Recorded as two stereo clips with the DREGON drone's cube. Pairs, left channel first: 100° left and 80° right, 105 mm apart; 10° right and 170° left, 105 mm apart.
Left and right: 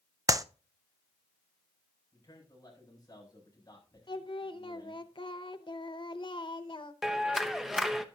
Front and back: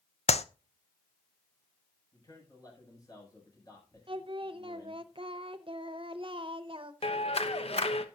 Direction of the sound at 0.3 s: 20° right.